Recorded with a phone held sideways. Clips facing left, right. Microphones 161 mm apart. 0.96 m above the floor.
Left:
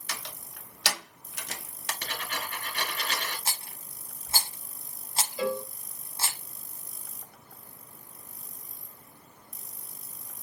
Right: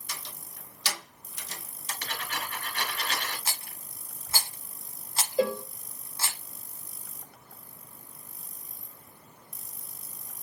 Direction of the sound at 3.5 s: 25° left (ahead or behind).